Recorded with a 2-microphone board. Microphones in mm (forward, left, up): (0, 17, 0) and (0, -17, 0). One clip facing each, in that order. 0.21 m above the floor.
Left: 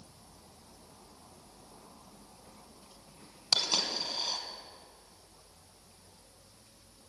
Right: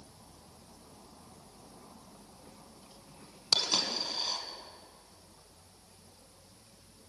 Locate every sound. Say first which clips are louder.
3.5 s a dropped coin: even; centre (ahead or behind), 1.2 m